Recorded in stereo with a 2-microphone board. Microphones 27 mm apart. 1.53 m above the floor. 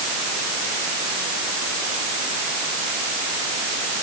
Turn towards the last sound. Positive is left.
No sound to turn to.